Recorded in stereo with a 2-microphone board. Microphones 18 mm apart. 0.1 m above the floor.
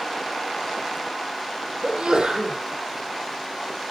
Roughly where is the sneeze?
Right.